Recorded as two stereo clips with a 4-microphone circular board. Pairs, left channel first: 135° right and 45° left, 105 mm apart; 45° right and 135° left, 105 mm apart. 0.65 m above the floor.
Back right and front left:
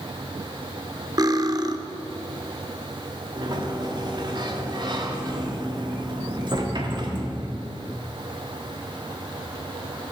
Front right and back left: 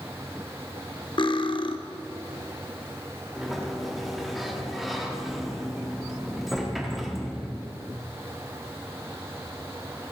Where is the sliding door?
45° left, 1.6 m.